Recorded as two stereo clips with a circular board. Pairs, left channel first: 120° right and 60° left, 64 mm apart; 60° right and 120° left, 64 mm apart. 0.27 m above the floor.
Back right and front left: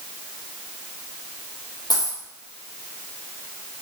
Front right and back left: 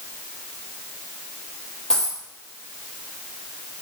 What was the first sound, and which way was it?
A dropped coin, 140° right.